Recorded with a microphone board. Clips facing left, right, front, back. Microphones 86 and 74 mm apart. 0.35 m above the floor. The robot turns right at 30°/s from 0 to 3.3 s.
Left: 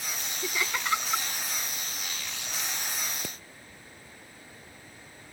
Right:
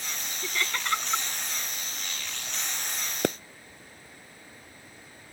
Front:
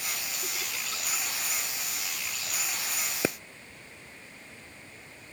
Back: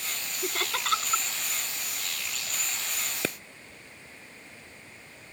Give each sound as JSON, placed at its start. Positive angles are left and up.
{"t": 0.4, "sound": "laughter", "azimuth_deg": 160}
{"t": 3.2, "sound": "a pop", "azimuth_deg": -75}